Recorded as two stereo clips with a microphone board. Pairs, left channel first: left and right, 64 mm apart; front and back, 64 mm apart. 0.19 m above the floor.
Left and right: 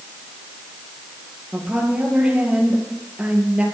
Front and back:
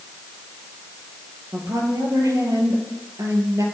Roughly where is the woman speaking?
Behind.